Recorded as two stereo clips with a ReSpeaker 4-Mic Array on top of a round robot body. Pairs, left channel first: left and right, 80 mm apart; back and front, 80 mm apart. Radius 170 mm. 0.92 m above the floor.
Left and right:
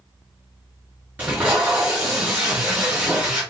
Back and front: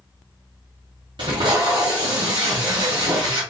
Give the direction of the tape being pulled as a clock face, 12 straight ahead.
1 o'clock.